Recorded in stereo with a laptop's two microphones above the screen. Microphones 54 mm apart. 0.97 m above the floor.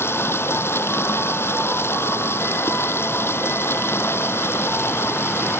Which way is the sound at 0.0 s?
50° left (ahead or behind).